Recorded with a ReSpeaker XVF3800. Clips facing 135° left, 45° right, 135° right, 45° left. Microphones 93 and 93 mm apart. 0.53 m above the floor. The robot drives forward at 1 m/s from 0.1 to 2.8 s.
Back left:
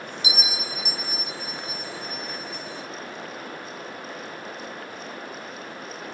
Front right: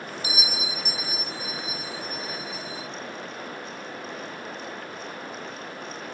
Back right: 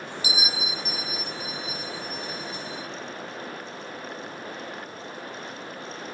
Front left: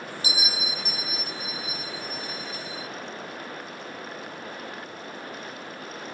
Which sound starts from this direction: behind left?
A bell, at 0.2 s.